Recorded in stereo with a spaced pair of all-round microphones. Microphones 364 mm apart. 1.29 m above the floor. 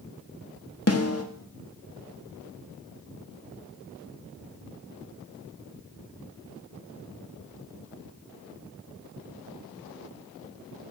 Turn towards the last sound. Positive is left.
turn(degrees=40)  # may be behind; listen again after turning